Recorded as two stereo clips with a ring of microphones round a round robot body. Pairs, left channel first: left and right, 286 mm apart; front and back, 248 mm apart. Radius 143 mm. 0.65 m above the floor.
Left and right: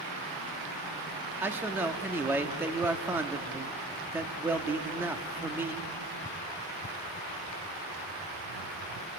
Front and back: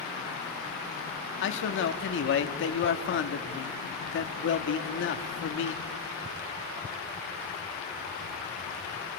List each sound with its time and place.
1.4 s a man speaking: 10° right, 1.4 m